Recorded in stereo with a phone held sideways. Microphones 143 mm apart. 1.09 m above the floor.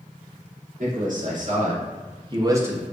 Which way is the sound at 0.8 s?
70° right (ahead or behind).